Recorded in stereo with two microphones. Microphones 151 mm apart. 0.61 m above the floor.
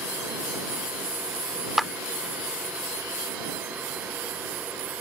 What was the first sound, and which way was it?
A clap, centre (ahead or behind).